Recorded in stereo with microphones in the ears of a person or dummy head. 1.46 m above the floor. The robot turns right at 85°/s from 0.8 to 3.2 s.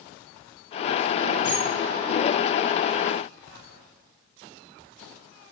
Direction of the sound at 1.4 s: 20° right (ahead or behind).